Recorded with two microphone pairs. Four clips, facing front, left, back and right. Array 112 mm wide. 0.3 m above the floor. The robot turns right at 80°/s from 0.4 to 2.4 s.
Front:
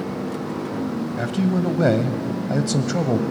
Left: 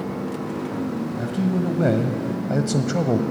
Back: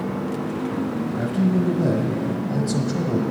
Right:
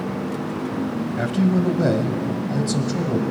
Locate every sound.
1.2 s a man speaking: 60° right, 1.4 m; by 3.2 s 40° left, 1.4 m